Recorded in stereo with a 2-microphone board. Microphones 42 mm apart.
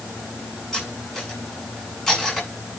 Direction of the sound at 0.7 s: 10° left (ahead or behind).